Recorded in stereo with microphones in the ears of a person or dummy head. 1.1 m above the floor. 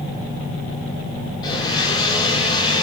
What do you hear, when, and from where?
1.4 s a blender: 30° left (ahead or behind), 2.5 m